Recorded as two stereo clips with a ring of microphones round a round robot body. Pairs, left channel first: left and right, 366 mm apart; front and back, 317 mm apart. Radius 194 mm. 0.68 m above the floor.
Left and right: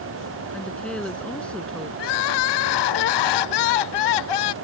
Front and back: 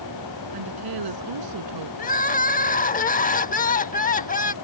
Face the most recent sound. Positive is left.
turn(degrees=65)